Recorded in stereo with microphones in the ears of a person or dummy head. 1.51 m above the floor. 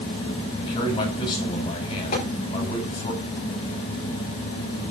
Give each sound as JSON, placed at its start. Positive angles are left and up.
{"t": 0.6, "sound": "a man speaking", "side_deg": 30, "distance_m": 5.5}
{"t": 2.1, "sound": "tapping", "side_deg": 50, "distance_m": 6.0}